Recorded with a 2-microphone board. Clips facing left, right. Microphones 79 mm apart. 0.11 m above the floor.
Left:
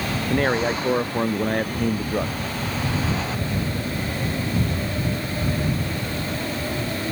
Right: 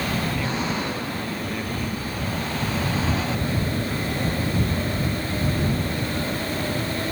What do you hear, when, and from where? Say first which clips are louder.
0.3 s a man speaking: left 5 dB; 60° left (ahead or behind)